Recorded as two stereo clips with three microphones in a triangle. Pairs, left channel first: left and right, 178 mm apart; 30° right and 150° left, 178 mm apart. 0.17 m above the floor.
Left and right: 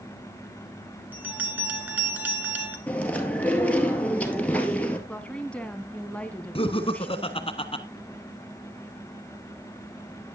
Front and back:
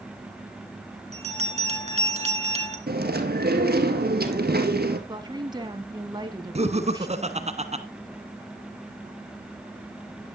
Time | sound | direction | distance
1.1 | a bell | 170° right | 2 m
2.9 | chewing | 170° left | 1.7 m
5.1 | a woman speaking | 160° left | 1.1 m
6.5 | laughter | 130° left | 1.3 m